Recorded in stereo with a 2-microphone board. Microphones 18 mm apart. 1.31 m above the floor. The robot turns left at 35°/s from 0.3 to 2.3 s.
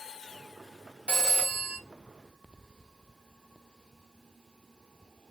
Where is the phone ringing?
75° right (ahead or behind), 1.4 m; by 1.8 s 55° right (ahead or behind), 1.4 m.